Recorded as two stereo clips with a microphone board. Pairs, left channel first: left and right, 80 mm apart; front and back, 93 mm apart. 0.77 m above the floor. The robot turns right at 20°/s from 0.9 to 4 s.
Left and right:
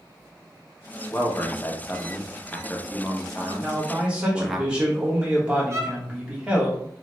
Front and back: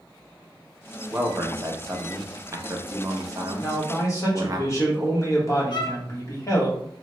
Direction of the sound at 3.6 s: 30° right.